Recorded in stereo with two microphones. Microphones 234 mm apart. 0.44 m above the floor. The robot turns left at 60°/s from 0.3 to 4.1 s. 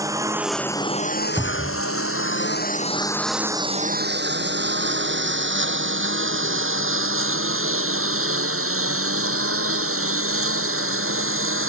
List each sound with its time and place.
0.0 s a lawn mower: 15° right (ahead or behind); by 11.7 s 75° right (ahead or behind)
1.4 s a cupboard door: 5° left (ahead or behind); by 1.8 s 20° right (ahead or behind)